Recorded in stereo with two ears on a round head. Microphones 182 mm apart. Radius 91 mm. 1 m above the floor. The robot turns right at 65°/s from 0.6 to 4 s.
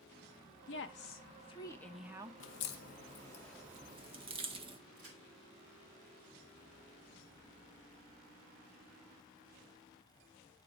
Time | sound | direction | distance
0.7 | a woman speaking | 95° left | 0.8 m
2.4 | a crack | 65° left (ahead or behind) | 0.8 m
5.0 | a crack | 75° right (ahead or behind) | 3.5 m